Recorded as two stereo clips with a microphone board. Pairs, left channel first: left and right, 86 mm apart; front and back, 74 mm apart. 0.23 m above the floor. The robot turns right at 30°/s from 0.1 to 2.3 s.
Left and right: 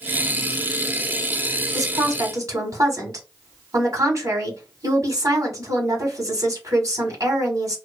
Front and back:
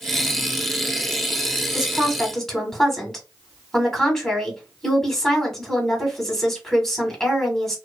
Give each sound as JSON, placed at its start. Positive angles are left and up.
{"t": 1.7, "sound": "a woman speaking", "azimuth_deg": -100, "distance_m": 1.3}